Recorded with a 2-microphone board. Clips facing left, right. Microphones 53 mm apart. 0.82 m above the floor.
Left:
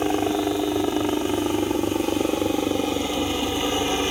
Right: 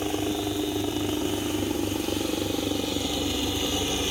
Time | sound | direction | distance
0.0 | a helicopter | 40° left (ahead or behind) | ?